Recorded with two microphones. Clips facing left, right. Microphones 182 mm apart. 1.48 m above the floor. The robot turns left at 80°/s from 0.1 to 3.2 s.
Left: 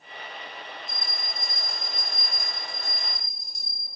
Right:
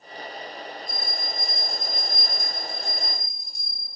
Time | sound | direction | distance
0.9 | a bell | 5° left | 2 m